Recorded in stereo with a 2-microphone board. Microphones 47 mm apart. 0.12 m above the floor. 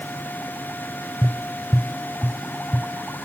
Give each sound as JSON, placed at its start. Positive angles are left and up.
{"t": 1.2, "sound": "tapping", "side_deg": 35, "distance_m": 0.7}